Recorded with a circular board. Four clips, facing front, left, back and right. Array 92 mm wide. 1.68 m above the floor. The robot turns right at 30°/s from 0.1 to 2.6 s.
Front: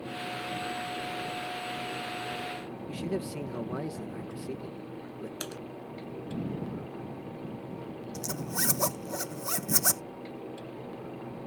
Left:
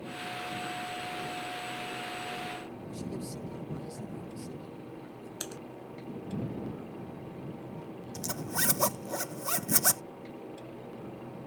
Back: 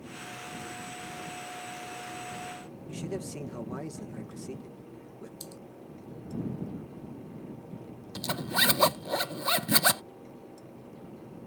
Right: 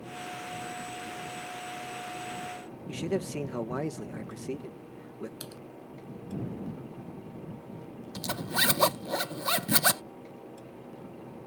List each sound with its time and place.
2.9 s a man speaking: 75° right
5.4 s typing on a keyboard: 15° left
8.2 s a zipper: 145° right